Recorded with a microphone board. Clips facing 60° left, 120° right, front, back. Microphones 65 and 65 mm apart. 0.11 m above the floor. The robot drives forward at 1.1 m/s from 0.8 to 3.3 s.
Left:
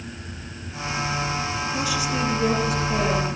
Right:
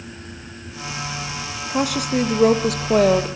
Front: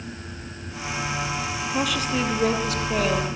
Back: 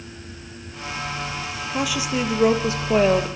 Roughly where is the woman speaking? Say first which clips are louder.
Right 8 dB, back 1 dB; right.